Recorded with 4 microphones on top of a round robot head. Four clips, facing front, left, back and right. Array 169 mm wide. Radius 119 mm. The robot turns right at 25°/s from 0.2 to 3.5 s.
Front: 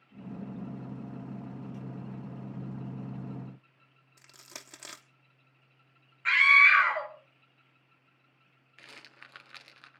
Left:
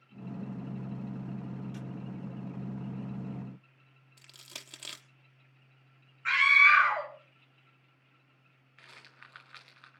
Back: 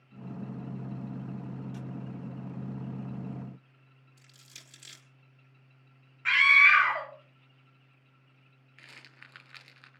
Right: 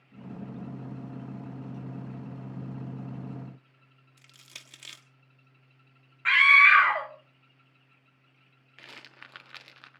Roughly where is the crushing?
Ahead.